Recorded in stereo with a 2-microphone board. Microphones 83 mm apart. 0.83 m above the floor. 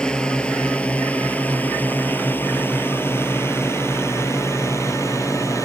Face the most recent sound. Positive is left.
turn(degrees=35)  # may be behind; listen again after turning